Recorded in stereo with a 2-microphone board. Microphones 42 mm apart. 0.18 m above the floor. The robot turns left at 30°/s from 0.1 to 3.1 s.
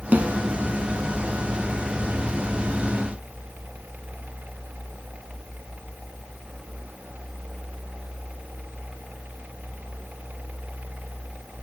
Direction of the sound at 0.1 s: 40° right (ahead or behind).